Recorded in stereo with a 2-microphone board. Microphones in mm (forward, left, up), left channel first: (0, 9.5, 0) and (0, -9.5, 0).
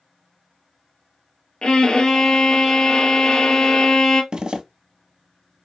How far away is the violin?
About 0.8 m.